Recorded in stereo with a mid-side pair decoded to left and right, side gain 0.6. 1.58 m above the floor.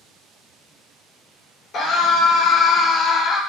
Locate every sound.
1.7 s a scream: 50° left, 1.7 m; by 3.4 s 35° left, 0.8 m